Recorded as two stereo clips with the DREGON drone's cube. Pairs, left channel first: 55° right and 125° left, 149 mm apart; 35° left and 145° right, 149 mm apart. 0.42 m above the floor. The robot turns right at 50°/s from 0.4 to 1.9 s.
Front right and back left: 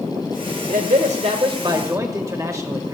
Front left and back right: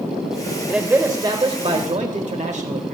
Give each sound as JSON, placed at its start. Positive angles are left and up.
{"t": 0.7, "sound": "a man speaking", "azimuth_deg": 130, "distance_m": 1.4}